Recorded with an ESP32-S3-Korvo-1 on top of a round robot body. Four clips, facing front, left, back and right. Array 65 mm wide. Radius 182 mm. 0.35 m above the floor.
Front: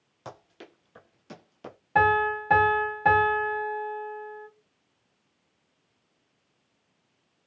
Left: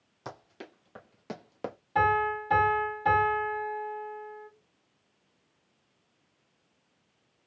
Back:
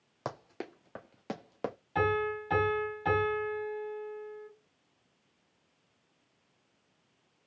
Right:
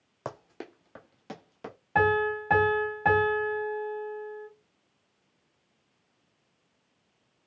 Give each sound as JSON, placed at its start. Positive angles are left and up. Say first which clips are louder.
{"t": 0.2, "sound": "running footsteps", "louder": "right 4 dB, back 5 dB", "azimuth_deg": -135, "distance_m": 0.8}
{"t": 1.9, "sound": "a piano", "louder": "right 1 dB, front 8 dB", "azimuth_deg": -40, "distance_m": 2.5}